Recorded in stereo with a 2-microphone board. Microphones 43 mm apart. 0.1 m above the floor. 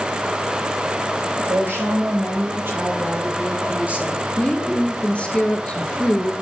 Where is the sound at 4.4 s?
25° left (ahead or behind), 1.5 m.